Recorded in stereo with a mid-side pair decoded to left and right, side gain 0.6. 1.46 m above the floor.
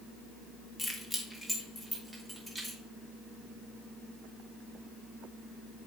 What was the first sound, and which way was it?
Keys jangling, 15° left.